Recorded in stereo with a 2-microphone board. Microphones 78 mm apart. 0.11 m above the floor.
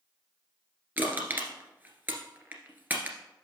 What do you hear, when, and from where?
1.0 s crushing: 25° right (ahead or behind), 1.6 m